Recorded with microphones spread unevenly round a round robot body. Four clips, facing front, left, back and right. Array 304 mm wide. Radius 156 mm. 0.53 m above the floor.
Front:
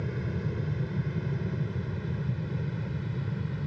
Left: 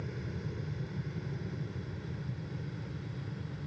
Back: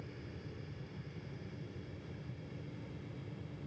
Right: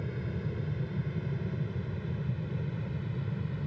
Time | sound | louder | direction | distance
0.0 | an aircraft | right 4 dB, front 15 dB | 15° right | ?